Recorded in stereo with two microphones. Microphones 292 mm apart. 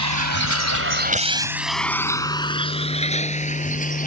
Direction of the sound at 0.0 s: 85° right.